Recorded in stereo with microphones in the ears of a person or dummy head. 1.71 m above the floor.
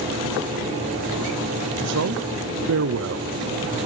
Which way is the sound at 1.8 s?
60° right (ahead or behind).